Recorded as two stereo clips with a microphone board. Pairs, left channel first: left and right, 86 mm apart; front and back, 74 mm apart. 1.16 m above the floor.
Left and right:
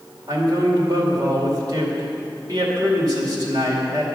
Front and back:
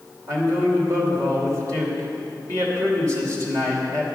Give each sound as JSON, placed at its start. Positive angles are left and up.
{"t": 0.3, "sound": "a man speaking", "azimuth_deg": -135, "distance_m": 2.5}